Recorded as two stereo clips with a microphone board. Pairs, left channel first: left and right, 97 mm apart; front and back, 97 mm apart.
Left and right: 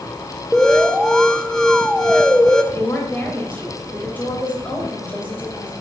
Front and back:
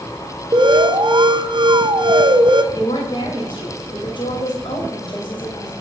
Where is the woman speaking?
20° left, 2.5 m.